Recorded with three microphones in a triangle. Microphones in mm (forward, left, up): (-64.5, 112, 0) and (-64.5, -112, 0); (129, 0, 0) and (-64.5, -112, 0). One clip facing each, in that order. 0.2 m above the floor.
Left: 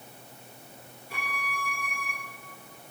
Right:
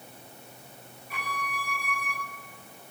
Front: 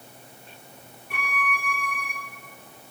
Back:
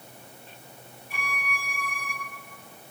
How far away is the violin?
About 2.5 m.